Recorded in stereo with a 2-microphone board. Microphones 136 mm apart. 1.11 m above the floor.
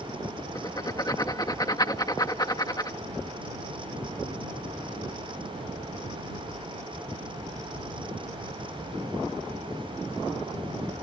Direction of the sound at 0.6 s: 30° left (ahead or behind).